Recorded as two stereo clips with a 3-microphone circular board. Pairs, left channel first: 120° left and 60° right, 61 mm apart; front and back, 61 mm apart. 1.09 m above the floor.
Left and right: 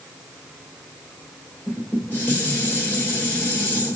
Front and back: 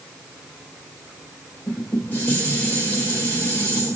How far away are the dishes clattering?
About 2.5 m.